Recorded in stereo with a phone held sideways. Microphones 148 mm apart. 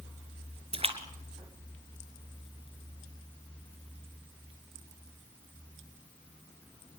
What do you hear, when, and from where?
0.7 s a splash: 45° right (ahead or behind), 2.5 m